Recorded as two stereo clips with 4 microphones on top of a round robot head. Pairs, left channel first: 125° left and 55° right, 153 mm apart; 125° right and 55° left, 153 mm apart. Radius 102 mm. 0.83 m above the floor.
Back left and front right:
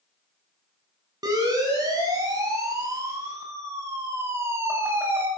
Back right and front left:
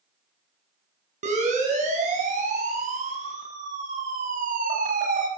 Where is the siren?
10° left, 8.5 m; by 5.3 s 25° left, 6 m.